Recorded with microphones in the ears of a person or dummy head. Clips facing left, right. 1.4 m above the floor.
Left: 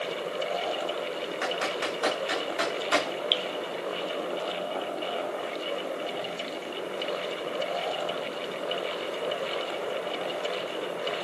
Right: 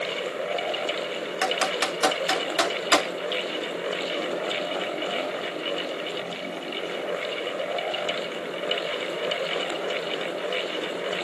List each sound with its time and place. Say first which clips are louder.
1.4 s typing on a keyboard: right 5 dB; 75° right (ahead or behind), 4 m
3.3 s dripping: right 3 dB; 40° left (ahead or behind), 0.7 m